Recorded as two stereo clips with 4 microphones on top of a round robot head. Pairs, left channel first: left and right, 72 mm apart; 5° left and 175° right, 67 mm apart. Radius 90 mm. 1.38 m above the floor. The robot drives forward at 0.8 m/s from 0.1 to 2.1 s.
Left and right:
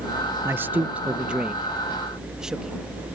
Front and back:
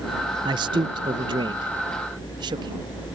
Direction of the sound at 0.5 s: 155° right.